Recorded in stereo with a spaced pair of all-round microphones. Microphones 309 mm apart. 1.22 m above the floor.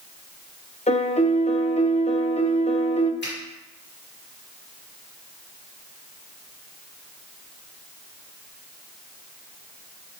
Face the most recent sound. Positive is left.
turn(degrees=35)  # may be behind; listen again after turning